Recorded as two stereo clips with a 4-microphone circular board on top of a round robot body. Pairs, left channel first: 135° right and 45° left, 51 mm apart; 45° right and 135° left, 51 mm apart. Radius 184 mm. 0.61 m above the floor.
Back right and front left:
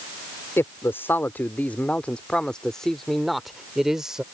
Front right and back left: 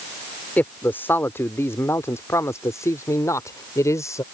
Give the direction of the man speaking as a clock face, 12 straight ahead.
3 o'clock.